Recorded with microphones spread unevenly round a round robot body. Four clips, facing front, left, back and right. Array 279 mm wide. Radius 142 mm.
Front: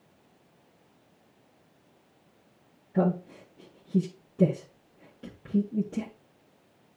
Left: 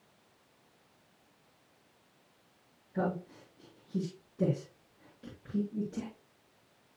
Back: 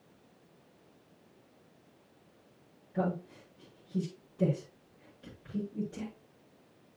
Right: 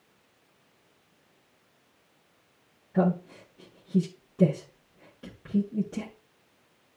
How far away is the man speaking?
About 5 m.